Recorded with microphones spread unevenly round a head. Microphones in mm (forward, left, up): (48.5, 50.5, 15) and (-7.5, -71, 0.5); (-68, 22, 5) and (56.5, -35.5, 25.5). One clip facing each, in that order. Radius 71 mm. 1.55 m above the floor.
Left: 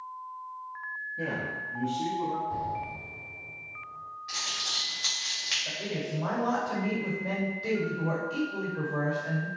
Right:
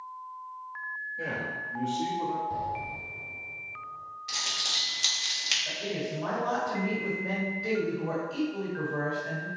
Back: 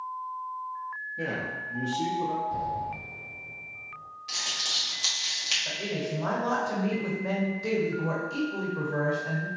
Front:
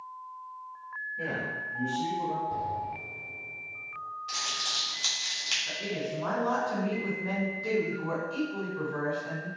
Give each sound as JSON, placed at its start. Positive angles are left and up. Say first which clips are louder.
{"t": 1.2, "sound": "a man speaking", "louder": "left 2 dB, back 2 dB", "azimuth_deg": 110, "distance_m": 0.8}
{"t": 2.5, "sound": "an explosion", "louder": "even, back 2 dB", "azimuth_deg": -65, "distance_m": 1.2}
{"t": 4.3, "sound": "crumpling", "louder": "right 1 dB, front 2 dB", "azimuth_deg": -115, "distance_m": 1.0}
{"t": 5.7, "sound": "a woman speaking", "louder": "right 1 dB, back 2 dB", "azimuth_deg": 130, "distance_m": 1.2}